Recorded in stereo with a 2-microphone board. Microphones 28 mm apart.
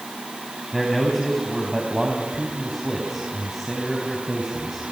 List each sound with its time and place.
0.7 s a man speaking: centre (ahead or behind), 4 m